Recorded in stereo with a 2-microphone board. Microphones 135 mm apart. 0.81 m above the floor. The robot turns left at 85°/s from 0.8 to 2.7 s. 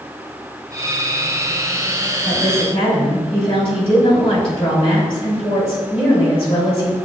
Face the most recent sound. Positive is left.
turn(degrees=45)